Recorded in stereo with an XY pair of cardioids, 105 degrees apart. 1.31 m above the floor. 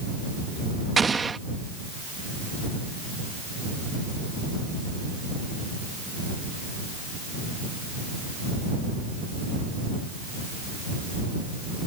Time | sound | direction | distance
1.0 | an explosion | 25° right | ?